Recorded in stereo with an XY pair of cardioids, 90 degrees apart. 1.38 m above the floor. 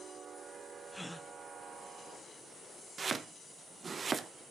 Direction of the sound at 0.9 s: 10° left.